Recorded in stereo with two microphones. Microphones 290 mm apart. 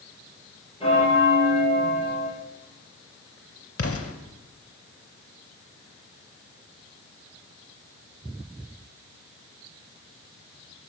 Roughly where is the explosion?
Left.